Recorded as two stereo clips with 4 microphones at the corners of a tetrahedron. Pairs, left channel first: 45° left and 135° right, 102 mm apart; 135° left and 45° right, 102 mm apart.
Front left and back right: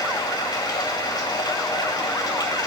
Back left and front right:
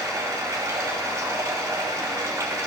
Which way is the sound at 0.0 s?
10° left.